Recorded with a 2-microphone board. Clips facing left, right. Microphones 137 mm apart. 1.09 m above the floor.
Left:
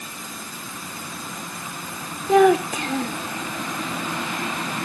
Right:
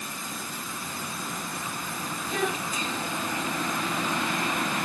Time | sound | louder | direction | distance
2.3 | a child speaking | left 16 dB | 85° left | ?